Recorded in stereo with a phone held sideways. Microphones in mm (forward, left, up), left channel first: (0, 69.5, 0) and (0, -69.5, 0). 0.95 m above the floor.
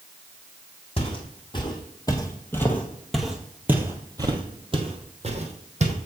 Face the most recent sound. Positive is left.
turn(degrees=-55)  # may be behind; listen again after turning